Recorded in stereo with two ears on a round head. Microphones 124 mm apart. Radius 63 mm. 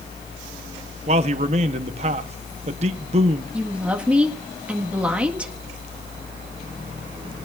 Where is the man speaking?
45° right (ahead or behind), 1.1 m.